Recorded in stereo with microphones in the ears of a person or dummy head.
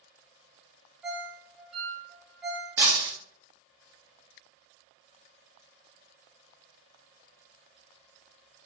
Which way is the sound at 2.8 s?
15° right (ahead or behind).